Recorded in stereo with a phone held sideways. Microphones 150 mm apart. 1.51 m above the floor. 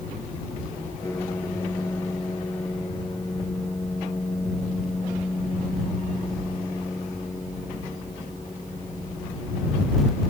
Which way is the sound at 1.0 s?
20° left (ahead or behind).